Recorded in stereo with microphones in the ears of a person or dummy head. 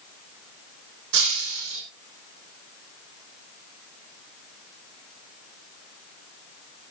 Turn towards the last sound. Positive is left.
turn(degrees=-80)